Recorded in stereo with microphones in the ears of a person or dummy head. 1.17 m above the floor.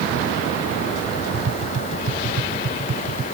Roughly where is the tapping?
Right.